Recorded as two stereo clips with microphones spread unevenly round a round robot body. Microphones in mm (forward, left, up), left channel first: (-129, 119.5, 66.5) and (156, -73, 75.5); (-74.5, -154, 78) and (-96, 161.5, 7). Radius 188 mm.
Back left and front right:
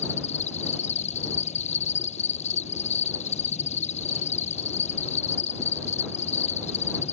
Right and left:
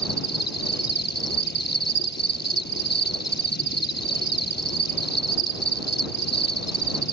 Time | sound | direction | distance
0.0 | an insect | 140° right | ?